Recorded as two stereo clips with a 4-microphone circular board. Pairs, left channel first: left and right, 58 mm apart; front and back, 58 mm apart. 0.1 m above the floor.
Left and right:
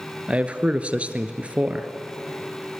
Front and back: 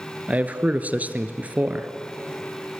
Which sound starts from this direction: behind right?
A man speaking, at 0.3 s.